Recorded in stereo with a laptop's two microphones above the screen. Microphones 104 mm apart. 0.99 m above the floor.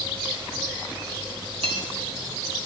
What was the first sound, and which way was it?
Cutlery clinking, 75° right (ahead or behind).